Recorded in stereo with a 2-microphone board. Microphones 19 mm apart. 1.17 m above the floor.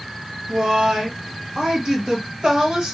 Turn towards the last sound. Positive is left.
turn(degrees=-40)  # may be behind; listen again after turning